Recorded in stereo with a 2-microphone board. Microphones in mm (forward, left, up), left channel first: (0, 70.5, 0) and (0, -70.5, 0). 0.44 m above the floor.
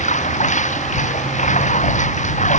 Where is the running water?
60° left (ahead or behind).